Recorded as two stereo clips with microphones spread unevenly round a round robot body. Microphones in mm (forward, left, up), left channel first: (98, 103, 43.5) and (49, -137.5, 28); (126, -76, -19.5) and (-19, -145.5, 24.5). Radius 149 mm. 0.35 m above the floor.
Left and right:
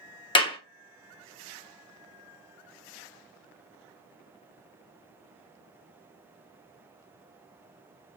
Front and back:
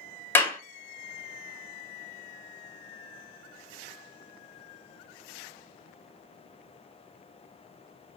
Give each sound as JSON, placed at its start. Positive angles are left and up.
{"t": 0.3, "sound": "a clap", "azimuth_deg": 25, "distance_m": 1.0}